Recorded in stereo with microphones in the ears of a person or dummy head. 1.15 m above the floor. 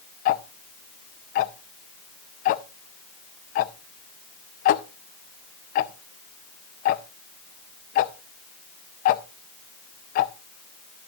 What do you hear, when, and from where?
0.2 s ticking: 45° left (ahead or behind), 0.5 m